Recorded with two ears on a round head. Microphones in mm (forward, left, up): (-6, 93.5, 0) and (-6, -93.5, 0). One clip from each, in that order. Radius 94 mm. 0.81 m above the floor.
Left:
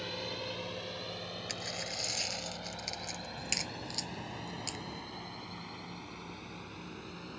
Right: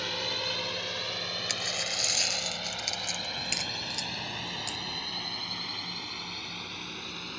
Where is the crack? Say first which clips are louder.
Right 6 dB; centre (ahead or behind).